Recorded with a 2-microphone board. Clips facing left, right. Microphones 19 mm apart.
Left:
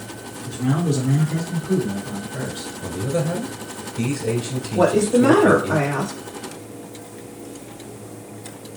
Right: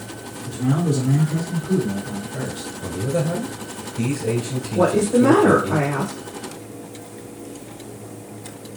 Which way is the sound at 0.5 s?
40° left (ahead or behind).